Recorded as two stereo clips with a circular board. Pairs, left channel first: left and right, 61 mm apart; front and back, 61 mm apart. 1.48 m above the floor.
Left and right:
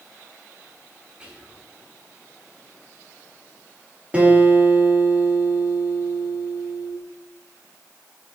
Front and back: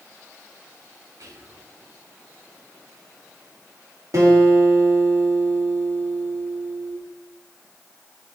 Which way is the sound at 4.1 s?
155° right.